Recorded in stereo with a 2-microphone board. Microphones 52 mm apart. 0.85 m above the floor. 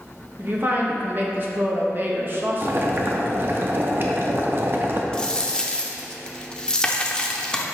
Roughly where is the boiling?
Right.